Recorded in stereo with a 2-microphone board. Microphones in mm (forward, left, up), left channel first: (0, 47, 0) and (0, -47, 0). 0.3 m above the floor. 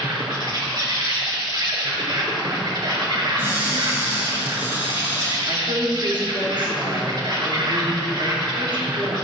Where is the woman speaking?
55° right (ahead or behind), 3 m.